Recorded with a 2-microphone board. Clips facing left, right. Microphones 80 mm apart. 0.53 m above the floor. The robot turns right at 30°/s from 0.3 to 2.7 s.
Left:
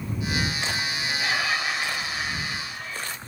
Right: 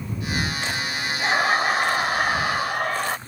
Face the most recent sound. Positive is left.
turn(degrees=-100)